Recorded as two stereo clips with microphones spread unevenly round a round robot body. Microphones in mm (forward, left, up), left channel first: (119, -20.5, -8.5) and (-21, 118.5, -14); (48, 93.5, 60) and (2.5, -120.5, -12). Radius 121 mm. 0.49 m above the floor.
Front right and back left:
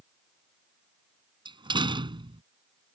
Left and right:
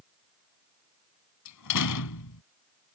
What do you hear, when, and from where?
1.4 s a door slam: 65° left